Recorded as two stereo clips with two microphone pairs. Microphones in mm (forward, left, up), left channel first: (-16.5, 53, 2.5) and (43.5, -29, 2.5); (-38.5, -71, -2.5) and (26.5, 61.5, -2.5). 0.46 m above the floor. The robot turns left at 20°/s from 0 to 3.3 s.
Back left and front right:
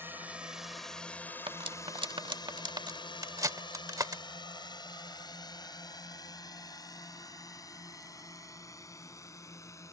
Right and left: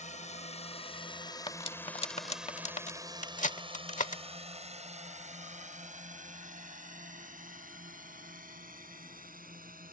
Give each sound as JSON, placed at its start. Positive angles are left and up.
{"t": 0.0, "sound": "a drone", "azimuth_deg": -120}
{"t": 1.5, "sound": "cutlery clinking", "azimuth_deg": -65}